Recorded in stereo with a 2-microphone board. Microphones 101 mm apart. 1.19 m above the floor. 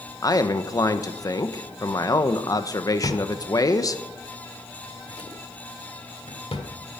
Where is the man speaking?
35° left (ahead or behind), 0.8 m.